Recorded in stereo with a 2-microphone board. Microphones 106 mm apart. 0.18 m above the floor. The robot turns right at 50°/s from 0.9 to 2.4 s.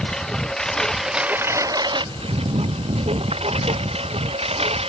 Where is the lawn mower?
175° left; by 4.9 s 110° right.